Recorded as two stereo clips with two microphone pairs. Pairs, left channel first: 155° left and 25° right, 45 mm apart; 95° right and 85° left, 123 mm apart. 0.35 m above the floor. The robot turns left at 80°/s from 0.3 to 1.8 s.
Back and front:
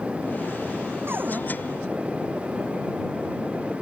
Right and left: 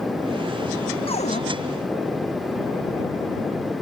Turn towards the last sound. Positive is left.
turn(degrees=-115)